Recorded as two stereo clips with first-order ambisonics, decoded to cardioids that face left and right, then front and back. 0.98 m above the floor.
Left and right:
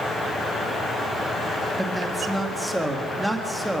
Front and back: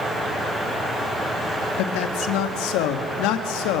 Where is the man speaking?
Straight ahead, 1.8 m.